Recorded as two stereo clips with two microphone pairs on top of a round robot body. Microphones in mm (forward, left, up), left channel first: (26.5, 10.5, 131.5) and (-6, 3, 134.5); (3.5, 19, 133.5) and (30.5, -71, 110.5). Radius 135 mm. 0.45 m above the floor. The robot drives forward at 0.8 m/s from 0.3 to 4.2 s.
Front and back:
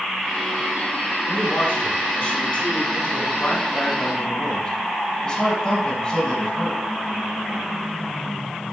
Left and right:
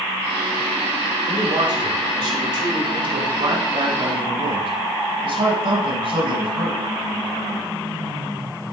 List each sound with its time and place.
1.3 s a man speaking: 35° right, 5.5 m; by 6.8 s 60° right, 3.5 m